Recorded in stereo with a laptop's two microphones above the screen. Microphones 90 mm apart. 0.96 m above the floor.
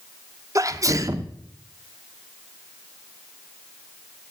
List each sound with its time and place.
0.6 s a sneeze: 40° right (ahead or behind), 0.6 m